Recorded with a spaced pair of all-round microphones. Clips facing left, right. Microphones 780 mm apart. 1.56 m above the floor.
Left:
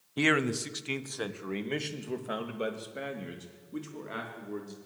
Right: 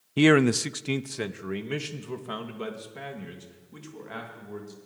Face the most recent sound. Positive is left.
turn(degrees=-25)  # may be behind; listen again after turning